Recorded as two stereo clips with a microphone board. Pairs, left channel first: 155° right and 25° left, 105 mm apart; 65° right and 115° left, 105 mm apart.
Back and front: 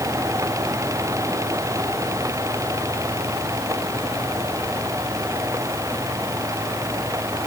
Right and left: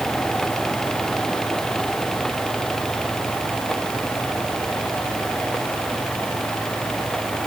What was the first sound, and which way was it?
Only background noise.